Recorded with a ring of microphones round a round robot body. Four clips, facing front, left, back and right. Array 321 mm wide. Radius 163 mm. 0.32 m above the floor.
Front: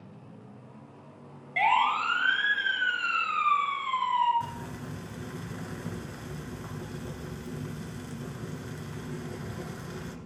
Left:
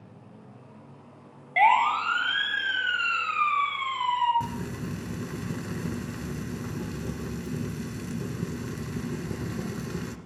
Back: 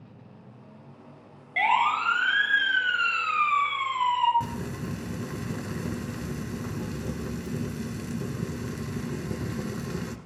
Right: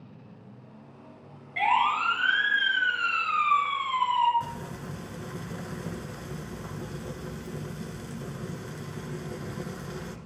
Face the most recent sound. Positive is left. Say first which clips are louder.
# left 3 dB, back 4 dB
turn(degrees=135)